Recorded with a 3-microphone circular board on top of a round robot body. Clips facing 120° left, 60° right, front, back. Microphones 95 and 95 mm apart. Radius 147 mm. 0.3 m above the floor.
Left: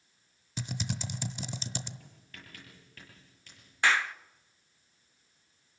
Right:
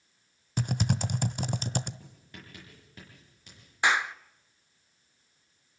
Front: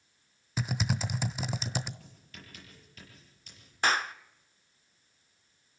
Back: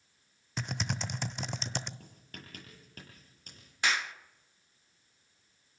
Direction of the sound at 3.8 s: 5° left.